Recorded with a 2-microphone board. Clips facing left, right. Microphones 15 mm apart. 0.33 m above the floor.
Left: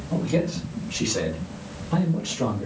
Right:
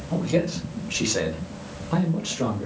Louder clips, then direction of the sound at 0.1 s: Right 1 dB; 20° right (ahead or behind).